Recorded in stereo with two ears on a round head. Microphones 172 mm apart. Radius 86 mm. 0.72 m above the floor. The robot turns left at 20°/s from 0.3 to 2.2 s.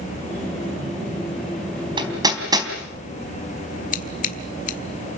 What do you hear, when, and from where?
2.0 s hammering: 25° right (ahead or behind), 3.5 m; by 2.7 s 20° right (ahead or behind), 3.5 m
3.9 s scissors: 40° left (ahead or behind), 1.6 m